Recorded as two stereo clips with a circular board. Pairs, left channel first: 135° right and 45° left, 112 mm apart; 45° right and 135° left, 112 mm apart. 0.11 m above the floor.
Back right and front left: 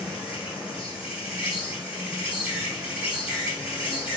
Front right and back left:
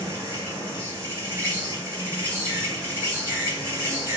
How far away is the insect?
About 1.7 m.